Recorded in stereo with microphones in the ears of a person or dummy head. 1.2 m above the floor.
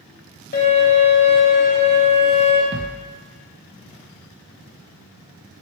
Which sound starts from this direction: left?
A violin, at 0.5 s.